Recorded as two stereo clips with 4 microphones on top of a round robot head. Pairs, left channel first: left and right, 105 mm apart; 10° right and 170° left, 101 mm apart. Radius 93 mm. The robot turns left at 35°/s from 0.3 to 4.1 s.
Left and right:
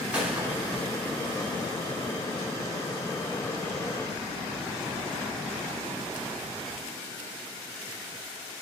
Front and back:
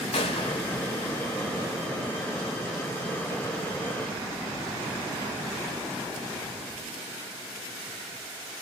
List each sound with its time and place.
0.1 s a gunshot: 10° right, 3 m; by 0.8 s 30° right, 3 m